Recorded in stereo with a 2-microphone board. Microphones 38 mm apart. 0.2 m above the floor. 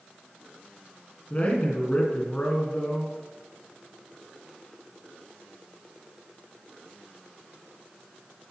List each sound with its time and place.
1.3 s a man speaking: 40° left (ahead or behind), 2.5 m